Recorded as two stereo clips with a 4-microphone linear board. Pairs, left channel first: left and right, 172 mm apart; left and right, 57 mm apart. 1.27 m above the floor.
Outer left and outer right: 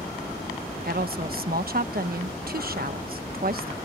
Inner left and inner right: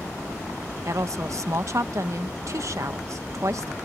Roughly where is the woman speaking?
Right.